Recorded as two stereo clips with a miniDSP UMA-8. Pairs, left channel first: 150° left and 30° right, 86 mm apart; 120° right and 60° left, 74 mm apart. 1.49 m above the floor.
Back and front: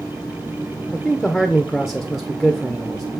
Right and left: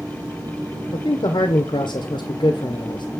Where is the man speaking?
120° right, 1.0 m.